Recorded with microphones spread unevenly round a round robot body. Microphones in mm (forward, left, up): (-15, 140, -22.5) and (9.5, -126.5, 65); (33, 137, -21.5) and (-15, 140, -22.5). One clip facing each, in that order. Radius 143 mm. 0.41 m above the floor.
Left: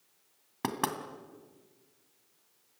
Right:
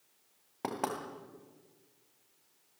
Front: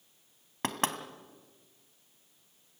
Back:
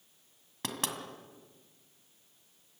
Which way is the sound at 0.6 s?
45° left.